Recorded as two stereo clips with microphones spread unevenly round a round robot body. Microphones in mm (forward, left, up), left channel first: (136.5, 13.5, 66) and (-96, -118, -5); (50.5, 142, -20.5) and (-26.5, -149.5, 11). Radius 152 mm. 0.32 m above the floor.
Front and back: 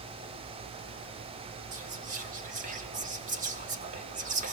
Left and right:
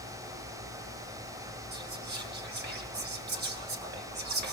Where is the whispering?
155° right, 1.9 m.